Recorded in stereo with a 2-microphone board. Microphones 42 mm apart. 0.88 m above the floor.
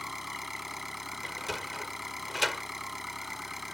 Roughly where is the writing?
I don't hear writing.